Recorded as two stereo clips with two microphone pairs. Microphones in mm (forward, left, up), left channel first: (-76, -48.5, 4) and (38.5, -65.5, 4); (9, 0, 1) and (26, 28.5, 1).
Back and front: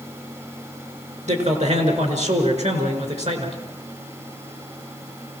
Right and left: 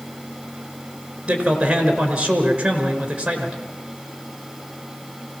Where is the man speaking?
5° left, 4.5 m.